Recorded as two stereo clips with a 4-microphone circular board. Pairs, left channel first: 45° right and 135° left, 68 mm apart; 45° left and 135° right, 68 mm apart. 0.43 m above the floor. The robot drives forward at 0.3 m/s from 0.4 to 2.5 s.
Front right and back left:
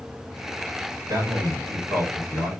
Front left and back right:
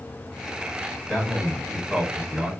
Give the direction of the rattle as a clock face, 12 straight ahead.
I don't hear a rattle.